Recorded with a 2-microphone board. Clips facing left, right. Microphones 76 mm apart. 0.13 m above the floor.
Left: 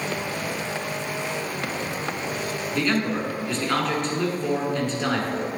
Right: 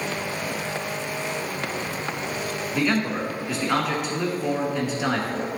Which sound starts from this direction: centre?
A man speaking, at 2.7 s.